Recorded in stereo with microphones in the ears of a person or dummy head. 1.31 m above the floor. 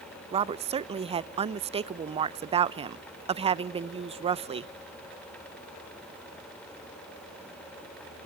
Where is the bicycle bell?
No bicycle bell in this recording.